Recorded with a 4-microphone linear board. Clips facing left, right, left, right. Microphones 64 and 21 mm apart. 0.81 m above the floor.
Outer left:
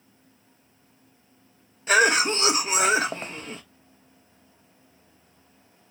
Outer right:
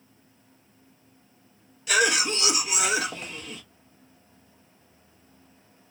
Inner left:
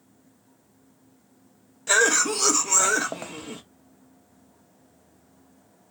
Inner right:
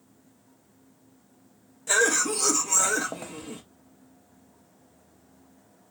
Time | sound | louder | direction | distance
1.9 | a cough | outer left 4 dB, inner left 3 dB | 35° left (ahead or behind) | 0.5 m